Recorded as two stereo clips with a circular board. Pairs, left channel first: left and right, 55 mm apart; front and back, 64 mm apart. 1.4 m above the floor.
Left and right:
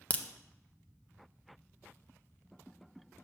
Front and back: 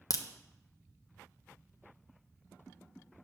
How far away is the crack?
About 0.5 m.